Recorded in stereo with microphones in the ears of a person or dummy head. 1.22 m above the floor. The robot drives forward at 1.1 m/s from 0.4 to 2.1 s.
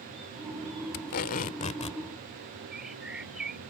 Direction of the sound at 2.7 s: 5° right (ahead or behind).